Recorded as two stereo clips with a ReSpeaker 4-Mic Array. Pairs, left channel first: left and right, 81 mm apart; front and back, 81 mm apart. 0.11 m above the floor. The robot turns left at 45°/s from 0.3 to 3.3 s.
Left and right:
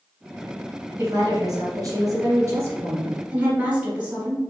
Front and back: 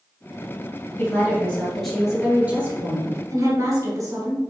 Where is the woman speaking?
50° right, 2 m; by 4.4 s 155° right, 2 m.